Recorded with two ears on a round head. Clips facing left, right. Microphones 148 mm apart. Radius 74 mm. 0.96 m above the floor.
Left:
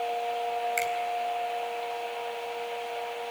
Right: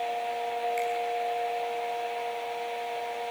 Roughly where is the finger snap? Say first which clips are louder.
Right 1 dB; left.